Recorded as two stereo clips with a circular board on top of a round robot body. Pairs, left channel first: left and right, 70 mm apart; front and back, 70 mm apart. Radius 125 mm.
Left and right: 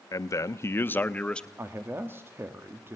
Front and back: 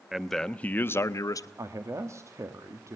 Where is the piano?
I don't hear a piano.